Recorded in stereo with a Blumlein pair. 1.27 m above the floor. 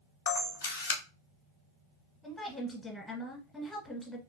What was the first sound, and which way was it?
A camera shutter, 60° left.